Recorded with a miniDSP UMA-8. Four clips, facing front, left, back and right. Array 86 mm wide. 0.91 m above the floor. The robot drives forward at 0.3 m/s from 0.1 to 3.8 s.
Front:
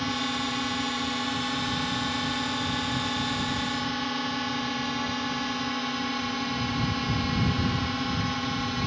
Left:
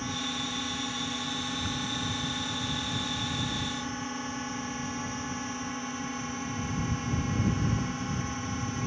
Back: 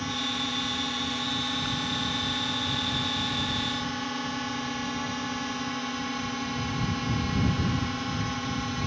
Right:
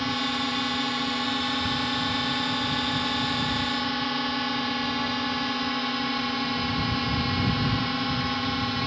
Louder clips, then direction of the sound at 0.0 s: Right 7 dB, front 3 dB; 65° right.